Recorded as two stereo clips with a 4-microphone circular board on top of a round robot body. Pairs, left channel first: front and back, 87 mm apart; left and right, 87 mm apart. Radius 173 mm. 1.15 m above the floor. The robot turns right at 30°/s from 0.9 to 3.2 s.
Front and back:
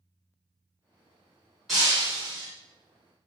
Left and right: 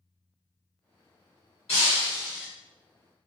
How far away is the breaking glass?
About 0.8 m.